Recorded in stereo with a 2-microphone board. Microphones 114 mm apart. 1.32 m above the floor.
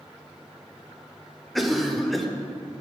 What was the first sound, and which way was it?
A cough, centre (ahead or behind).